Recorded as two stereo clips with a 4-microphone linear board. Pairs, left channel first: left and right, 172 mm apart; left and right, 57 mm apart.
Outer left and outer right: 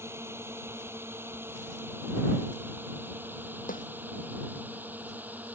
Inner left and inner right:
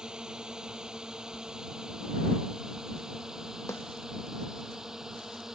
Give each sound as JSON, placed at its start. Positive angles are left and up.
{"t": 0.0, "sound": "a drone", "side_deg": -15}
{"t": 3.7, "sound": "a snare drum", "side_deg": 55}